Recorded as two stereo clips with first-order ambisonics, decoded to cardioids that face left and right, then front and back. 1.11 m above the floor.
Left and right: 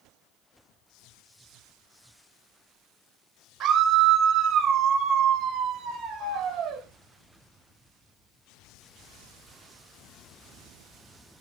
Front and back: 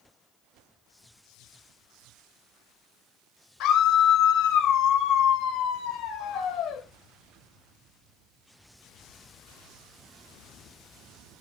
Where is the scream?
30° right, 1.6 m.